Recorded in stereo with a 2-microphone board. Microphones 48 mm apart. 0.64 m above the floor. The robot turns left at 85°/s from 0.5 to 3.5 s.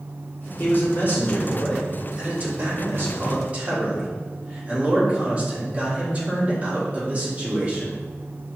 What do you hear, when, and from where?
0.6 s a man speaking: 105° left, 1.8 m; by 8.0 s 145° right, 1.8 m